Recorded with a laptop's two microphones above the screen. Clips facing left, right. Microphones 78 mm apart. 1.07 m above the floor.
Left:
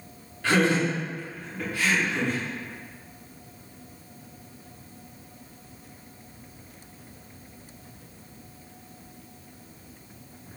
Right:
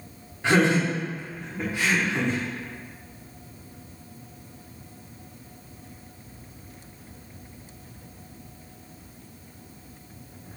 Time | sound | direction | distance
0.4 | laughter | 20° right (ahead or behind) | 0.8 m